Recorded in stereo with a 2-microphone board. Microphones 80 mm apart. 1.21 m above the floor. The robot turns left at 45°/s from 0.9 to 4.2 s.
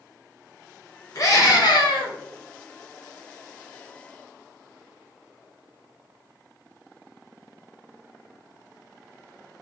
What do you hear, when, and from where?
1.1 s a scream: 140° left, 1.1 m; by 2.1 s 100° left, 1.1 m